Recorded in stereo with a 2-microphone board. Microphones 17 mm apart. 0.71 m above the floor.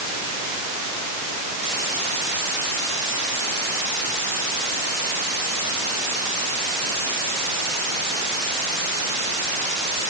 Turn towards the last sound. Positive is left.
No sound to turn to.